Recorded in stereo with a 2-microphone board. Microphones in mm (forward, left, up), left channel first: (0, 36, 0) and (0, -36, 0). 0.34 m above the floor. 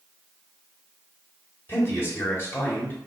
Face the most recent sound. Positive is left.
turn(degrees=30)  # may be behind; listen again after turning